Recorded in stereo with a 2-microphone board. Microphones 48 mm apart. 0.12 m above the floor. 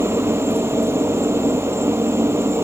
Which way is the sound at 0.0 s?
60° right (ahead or behind).